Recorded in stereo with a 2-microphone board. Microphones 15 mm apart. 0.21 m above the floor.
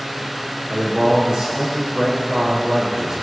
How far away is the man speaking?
About 6.5 m.